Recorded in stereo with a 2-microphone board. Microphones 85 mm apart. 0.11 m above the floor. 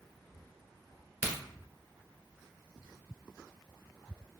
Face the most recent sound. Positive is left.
turn(degrees=-20)  # may be behind; listen again after turning